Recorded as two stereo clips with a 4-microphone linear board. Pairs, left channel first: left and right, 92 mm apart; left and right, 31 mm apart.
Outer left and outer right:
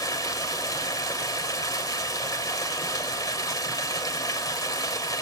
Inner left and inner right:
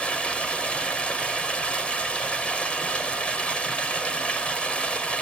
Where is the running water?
40° left (ahead or behind), 2.5 m.